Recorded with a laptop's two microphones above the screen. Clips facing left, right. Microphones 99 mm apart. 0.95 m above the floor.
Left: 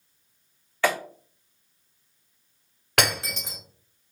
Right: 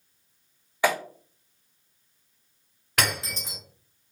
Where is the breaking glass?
70° left (ahead or behind), 1.4 m.